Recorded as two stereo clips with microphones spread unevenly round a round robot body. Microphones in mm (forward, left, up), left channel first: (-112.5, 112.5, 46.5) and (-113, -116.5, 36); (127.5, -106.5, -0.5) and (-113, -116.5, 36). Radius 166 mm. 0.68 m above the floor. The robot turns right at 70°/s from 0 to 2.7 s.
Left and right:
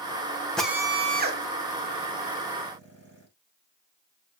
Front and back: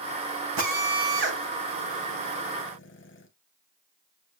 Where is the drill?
175° left, 3 m; by 3.3 s 35° right, 3 m.